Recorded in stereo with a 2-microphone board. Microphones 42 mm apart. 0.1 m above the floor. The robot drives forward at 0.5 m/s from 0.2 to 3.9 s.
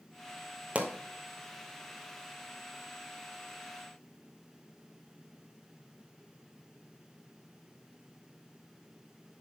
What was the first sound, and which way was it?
A pop, 30° right (ahead or behind).